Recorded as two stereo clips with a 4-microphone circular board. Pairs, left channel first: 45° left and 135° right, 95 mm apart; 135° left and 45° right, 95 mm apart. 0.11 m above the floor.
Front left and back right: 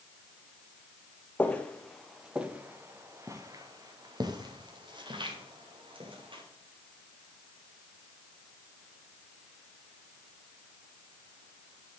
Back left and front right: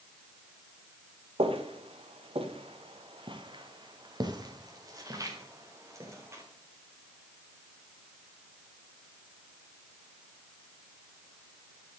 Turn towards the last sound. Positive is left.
turn(degrees=-105)